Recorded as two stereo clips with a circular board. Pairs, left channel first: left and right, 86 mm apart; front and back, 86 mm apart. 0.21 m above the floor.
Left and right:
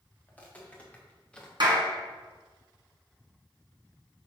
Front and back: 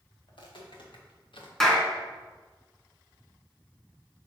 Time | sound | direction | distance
0.3 | footsteps | 20° left | 3.5 m
1.6 | a clap | 85° right | 2.0 m